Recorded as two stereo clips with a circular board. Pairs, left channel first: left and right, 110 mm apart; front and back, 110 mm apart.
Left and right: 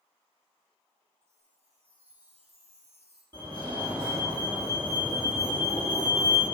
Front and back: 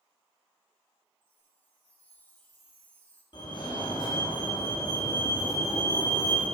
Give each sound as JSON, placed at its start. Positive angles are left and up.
{"t": 1.2, "sound": "a chime", "azimuth_deg": -75, "distance_m": 2.5}
{"t": 3.3, "sound": "a fire alarm", "azimuth_deg": -45, "distance_m": 5.0}